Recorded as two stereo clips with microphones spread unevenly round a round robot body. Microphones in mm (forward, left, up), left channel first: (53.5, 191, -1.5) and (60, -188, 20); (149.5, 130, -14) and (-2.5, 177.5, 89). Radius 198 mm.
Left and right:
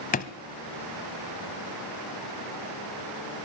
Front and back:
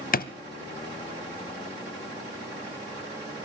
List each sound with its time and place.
0.1 s a drawer: 20° left, 0.9 m